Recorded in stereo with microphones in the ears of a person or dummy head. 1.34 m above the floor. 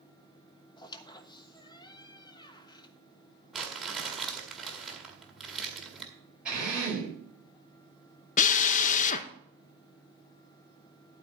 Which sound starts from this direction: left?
A drill, at 8.4 s.